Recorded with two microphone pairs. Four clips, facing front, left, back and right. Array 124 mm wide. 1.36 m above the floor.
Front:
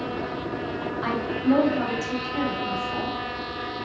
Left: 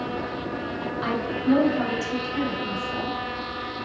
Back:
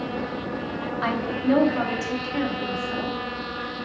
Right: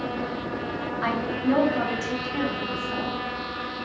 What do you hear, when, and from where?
1.0 s a woman speaking: 165° right, 1.2 m